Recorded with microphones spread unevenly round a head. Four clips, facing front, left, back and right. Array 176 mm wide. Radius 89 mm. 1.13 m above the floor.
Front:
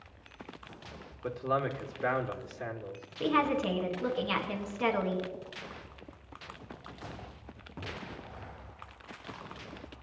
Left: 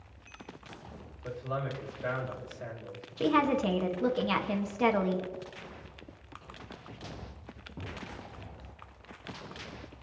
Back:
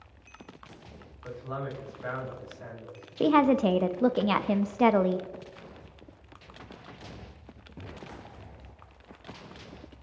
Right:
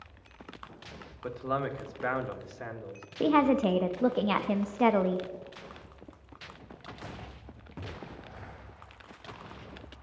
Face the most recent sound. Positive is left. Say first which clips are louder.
# right 3 dB, back 7 dB
turn(degrees=-155)